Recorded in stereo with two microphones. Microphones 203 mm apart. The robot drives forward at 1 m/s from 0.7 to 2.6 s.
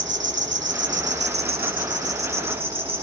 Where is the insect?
80° right, 1.1 m; by 3.0 s 30° right (ahead or behind), 2 m.